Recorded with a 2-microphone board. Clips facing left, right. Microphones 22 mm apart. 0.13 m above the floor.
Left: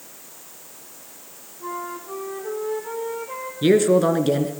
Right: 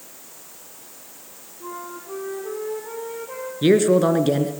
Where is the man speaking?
5° right (ahead or behind), 1.6 m.